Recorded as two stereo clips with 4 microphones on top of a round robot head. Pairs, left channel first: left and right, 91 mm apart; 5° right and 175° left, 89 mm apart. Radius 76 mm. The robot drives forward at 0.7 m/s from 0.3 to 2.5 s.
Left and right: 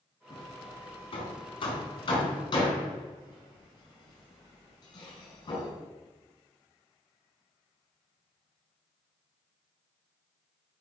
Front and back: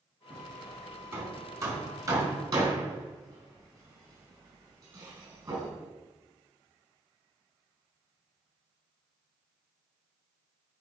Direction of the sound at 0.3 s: 105° left.